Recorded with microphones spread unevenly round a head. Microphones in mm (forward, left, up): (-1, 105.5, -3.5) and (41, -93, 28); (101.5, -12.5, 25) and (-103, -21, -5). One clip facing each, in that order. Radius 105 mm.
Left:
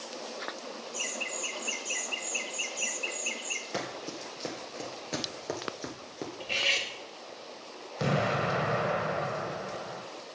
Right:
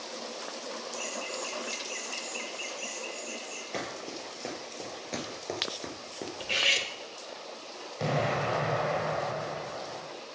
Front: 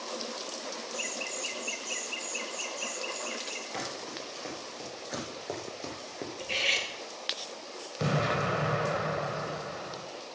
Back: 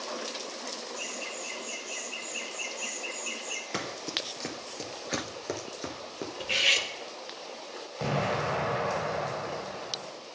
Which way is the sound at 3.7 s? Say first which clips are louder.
Left 1 dB, back 4 dB; 170° right.